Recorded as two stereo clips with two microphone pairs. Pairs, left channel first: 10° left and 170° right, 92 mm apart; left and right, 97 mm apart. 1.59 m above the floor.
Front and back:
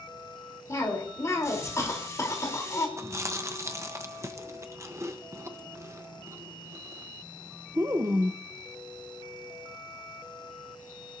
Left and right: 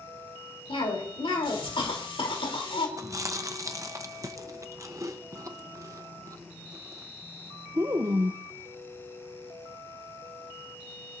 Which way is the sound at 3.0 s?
125° right.